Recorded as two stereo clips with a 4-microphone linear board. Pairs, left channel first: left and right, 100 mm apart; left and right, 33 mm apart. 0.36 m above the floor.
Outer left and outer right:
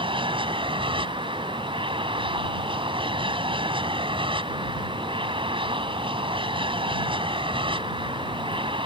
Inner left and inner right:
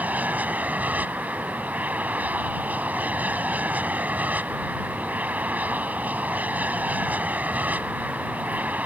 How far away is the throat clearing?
I don't hear throat clearing.